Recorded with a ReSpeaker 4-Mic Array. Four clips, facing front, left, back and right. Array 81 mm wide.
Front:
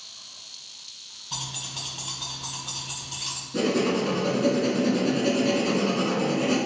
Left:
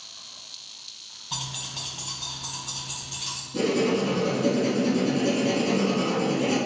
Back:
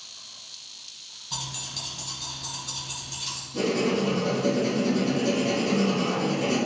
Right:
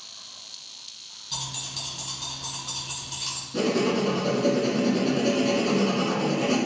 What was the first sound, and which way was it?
Keys jangling, 80° left.